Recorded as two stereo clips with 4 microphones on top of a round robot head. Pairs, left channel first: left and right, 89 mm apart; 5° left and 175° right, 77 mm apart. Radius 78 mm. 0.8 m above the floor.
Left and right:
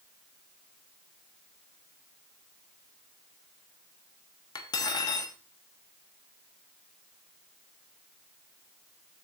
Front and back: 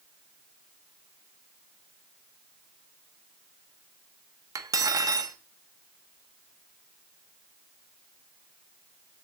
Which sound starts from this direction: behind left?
Cutlery clinking, at 4.5 s.